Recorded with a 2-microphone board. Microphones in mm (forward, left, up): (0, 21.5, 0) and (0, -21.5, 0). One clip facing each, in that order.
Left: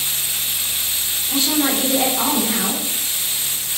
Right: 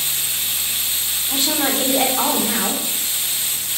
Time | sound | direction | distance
1.3 | a woman speaking | 35° right (ahead or behind) | 3 m